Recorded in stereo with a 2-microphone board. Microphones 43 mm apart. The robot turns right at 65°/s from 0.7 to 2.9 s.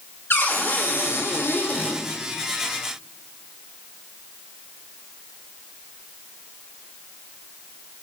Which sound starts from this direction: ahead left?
A cupboard door, at 0.3 s.